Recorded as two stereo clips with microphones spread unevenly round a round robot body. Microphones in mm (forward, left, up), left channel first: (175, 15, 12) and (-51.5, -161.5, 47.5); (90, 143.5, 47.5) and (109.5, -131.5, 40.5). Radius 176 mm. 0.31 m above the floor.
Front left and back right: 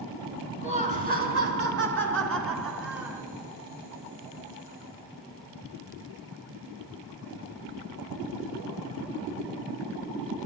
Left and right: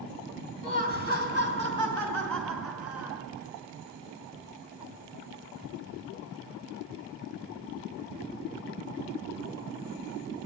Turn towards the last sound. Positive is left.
turn(degrees=-165)